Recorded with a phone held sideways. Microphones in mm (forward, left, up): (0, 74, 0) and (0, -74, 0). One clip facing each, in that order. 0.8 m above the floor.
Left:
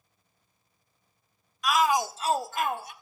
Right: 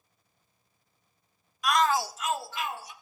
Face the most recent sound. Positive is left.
turn(degrees=60)  # may be behind; listen again after turning